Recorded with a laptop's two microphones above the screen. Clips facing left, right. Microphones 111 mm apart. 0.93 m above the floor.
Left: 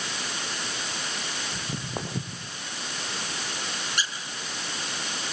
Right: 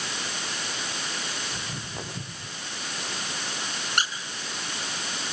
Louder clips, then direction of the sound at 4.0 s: Right 5 dB; 60° right (ahead or behind).